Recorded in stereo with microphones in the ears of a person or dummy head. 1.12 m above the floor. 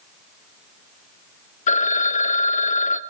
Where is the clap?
No clap in this recording.